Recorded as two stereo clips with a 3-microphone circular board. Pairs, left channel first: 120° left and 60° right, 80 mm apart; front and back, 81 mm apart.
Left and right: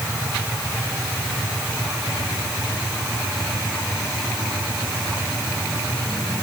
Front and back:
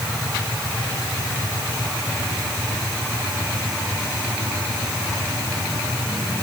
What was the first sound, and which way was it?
Only background noise.